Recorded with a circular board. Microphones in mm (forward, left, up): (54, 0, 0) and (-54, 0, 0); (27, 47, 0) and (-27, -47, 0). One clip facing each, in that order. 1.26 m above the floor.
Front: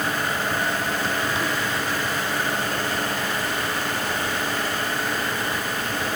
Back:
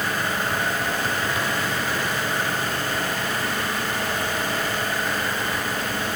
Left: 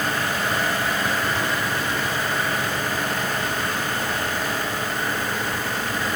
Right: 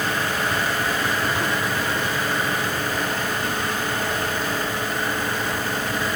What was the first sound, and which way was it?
Only background noise.